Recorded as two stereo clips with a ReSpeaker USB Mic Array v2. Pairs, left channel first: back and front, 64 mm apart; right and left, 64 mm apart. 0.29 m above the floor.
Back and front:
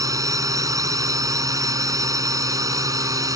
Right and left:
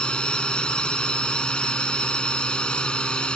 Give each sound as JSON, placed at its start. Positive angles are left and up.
{"t": 0.0, "sound": "a drone", "azimuth_deg": -15}